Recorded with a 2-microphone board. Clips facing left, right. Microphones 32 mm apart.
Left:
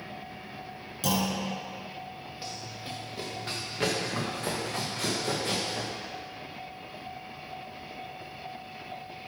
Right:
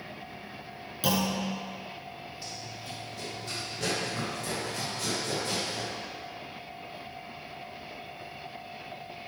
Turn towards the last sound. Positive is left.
turn(degrees=80)